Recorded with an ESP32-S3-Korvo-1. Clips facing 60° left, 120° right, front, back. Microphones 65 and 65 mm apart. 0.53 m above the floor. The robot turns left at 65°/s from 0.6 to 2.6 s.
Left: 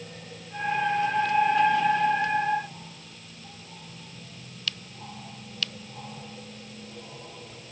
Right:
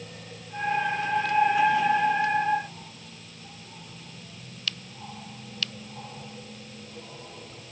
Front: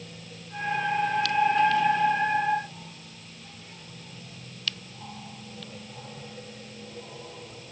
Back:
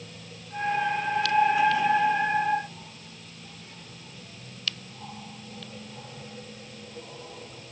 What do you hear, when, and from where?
Only background noise.